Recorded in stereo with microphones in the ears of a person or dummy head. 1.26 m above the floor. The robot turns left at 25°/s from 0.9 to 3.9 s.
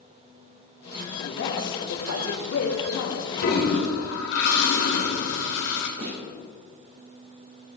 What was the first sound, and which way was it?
A man speaking, 120° left.